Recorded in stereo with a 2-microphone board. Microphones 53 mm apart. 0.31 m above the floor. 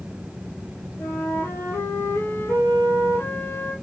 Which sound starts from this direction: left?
A flute, at 1.0 s.